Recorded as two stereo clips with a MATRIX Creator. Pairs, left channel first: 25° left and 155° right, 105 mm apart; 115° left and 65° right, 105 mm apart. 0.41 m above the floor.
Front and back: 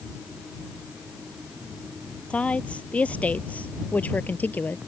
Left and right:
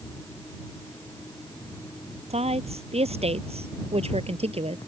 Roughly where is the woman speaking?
Ahead right.